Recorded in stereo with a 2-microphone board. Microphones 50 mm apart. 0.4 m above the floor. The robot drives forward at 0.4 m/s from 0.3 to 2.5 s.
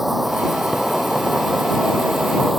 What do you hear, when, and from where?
0.0 s an insect: 5° right (ahead or behind)